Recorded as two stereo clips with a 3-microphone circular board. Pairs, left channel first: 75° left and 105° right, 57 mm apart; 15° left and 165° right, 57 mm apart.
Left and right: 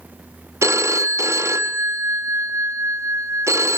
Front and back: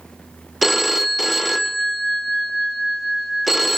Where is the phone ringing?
75° right, 0.9 m.